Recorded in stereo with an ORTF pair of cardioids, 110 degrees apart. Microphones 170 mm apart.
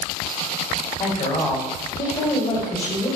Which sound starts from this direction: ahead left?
A woman speaking, at 1.0 s.